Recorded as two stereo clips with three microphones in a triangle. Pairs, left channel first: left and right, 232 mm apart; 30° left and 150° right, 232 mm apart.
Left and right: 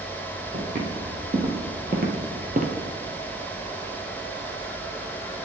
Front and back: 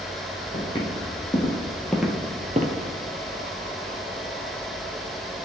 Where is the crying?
No crying in this recording.